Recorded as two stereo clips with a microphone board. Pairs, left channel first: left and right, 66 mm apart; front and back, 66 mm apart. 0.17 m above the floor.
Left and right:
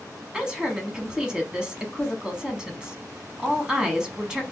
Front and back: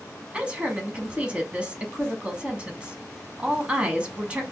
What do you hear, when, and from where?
0.3 s a woman speaking: 145° right, 1.0 m